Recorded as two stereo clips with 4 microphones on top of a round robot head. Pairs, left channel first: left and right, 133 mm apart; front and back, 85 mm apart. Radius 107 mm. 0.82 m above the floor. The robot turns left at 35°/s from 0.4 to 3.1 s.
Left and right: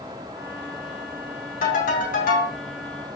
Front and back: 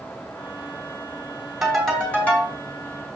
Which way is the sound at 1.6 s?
95° left.